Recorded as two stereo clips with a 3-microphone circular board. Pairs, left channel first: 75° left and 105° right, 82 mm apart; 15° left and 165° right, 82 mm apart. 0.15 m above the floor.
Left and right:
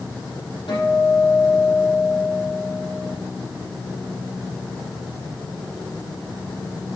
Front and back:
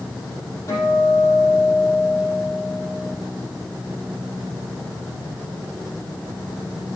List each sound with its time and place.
0.7 s a guitar: 70° left, 5 m